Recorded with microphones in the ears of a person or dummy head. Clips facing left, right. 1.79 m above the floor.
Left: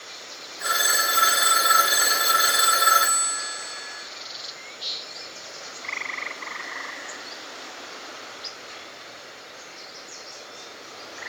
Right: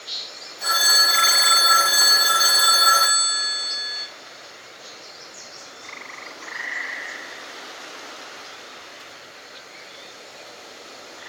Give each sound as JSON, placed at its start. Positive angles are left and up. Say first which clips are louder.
{"t": 0.6, "sound": "a phone ringing", "louder": "even", "side_deg": 30, "distance_m": 2.0}